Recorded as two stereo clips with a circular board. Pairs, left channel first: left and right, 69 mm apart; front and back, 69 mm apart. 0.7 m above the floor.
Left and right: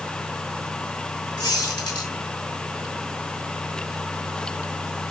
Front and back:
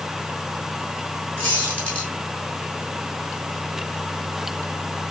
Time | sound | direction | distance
1.4 | a squeak | 65° left | 5 m